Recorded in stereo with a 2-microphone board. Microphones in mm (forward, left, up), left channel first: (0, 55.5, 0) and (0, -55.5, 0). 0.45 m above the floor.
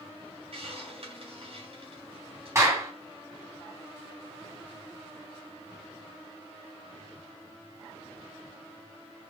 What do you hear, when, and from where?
0.5 s a hiss: 60° right (ahead or behind), 3 m
2.5 s a clap: 25° right (ahead or behind), 3 m